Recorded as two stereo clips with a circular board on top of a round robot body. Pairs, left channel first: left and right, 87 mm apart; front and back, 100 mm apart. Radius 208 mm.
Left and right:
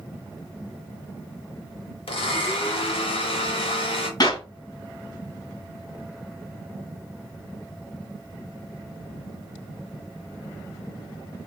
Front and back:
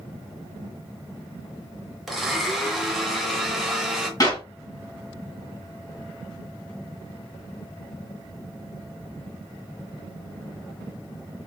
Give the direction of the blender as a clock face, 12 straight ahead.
9 o'clock.